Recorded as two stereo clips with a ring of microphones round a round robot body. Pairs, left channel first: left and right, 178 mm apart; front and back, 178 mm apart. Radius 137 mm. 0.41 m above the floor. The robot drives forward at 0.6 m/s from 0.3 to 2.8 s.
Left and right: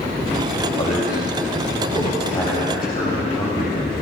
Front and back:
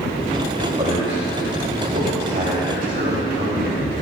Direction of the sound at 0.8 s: 130° left.